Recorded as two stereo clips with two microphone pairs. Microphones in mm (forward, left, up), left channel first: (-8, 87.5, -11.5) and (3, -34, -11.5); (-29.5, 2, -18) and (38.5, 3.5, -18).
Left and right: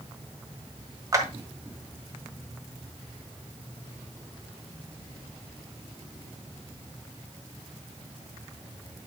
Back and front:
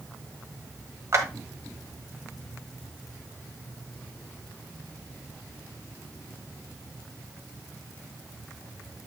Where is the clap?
30° right, 1.5 m.